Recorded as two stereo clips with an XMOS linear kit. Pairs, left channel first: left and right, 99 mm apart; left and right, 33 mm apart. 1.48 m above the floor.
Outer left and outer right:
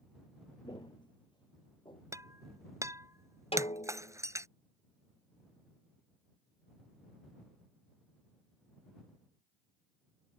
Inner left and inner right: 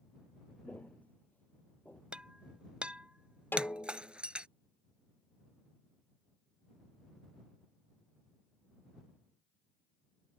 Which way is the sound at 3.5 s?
75° left (ahead or behind).